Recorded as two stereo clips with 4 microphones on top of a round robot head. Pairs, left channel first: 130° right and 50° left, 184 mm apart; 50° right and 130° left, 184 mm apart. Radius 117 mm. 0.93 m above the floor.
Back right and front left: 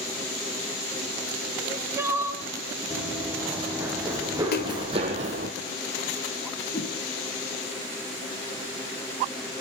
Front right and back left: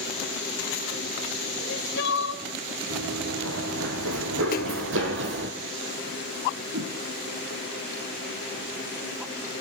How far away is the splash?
About 2 m.